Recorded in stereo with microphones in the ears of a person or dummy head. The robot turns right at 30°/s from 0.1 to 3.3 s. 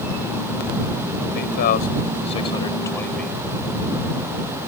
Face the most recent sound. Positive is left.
turn(degrees=170)